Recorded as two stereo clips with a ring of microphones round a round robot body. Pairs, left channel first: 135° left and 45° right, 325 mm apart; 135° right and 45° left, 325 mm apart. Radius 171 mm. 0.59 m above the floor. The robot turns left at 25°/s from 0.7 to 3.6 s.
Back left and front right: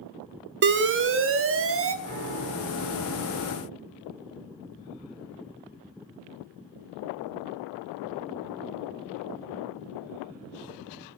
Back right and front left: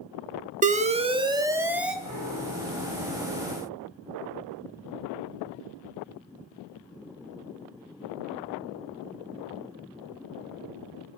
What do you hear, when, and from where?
0.6 s an alarm: 10° right, 0.8 m; by 1.9 s 40° right, 0.8 m
2.0 s a piano: 15° left, 3.5 m; by 3.0 s 10° right, 3.5 m